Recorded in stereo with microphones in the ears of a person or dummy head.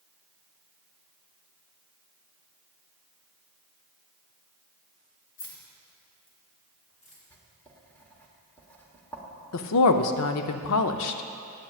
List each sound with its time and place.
5.4 s keys jangling: 65° left (ahead or behind), 1.6 m; by 7.2 s 40° left (ahead or behind), 3 m
7.3 s writing: 10° left (ahead or behind), 1.2 m
9.5 s a woman speaking: 80° left, 0.6 m